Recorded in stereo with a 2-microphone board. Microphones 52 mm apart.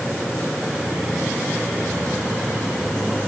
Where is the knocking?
I don't hear knocking.